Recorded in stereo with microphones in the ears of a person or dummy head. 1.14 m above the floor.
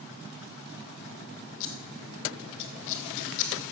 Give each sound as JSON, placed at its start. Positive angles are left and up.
{"t": 1.6, "sound": "scissors", "side_deg": 70, "distance_m": 1.5}